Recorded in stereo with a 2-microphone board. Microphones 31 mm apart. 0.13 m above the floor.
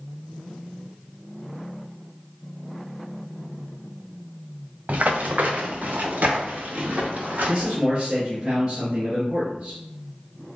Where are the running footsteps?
55° right (ahead or behind), 1.1 m; by 7.8 s 75° right (ahead or behind), 2.5 m.